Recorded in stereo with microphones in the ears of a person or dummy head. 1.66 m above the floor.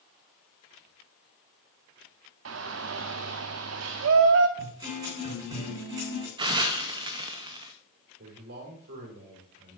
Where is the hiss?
25° right (ahead or behind), 0.7 m.